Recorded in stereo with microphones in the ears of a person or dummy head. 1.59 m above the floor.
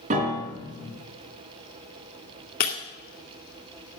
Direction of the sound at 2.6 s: 50° left (ahead or behind).